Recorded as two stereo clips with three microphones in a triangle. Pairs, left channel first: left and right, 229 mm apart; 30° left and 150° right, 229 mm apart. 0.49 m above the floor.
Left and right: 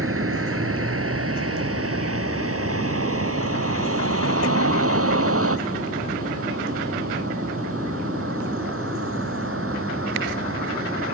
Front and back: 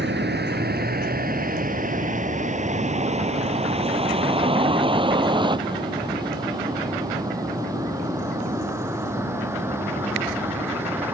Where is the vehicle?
110° right; by 11.1 s 70° right.